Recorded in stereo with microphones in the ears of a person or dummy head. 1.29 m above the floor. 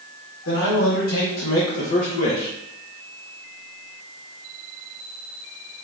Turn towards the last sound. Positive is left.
turn(degrees=20)  # may be behind; listen again after turning